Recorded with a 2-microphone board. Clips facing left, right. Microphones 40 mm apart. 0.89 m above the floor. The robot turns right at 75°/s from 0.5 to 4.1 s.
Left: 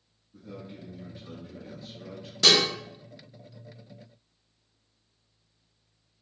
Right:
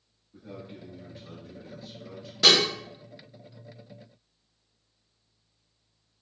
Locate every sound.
0.3 s a man speaking: 30° right, 1.3 m; by 2.3 s 110° left, 1.3 m
2.4 s dishes clattering: 5° right (ahead or behind), 0.7 m; by 2.7 s 25° right (ahead or behind), 0.7 m